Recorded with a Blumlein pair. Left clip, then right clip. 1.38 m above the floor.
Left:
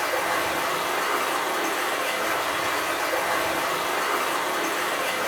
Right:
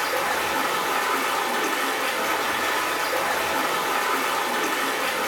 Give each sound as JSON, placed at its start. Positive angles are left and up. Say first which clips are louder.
{"t": 0.0, "sound": "running water", "louder": "even", "azimuth_deg": -65, "distance_m": 0.9}